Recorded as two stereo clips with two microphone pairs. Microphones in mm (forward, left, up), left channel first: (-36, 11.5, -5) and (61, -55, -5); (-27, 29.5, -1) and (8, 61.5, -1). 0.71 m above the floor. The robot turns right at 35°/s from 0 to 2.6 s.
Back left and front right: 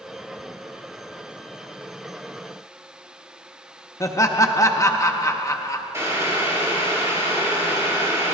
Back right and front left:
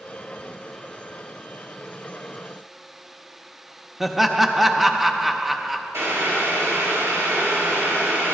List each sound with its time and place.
4.0 s laughter: 120° left, 0.7 m
5.9 s boiling: 30° left, 3 m